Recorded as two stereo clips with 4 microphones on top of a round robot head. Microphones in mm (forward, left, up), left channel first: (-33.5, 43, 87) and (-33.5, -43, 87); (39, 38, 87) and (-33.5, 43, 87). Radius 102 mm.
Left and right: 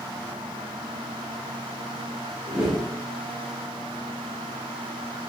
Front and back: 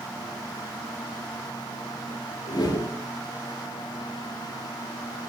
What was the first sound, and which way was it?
A whoosh, 5° right.